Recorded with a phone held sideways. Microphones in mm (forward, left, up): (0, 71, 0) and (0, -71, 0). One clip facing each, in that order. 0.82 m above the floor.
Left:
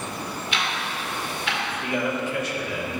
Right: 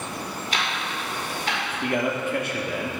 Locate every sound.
0.5 s ticking: 40° right (ahead or behind), 1.8 m
1.8 s a man speaking: 55° right (ahead or behind), 1.3 m